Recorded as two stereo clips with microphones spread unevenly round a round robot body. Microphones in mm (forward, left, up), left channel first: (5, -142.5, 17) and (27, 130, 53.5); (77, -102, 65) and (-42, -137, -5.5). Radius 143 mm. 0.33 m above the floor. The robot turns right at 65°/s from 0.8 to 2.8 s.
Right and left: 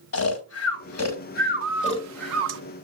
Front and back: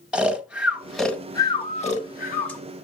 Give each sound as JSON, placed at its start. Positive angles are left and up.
{"t": 0.1, "sound": "snoring", "azimuth_deg": -105, "distance_m": 1.6}
{"t": 1.6, "sound": "a bird", "azimuth_deg": 70, "distance_m": 0.7}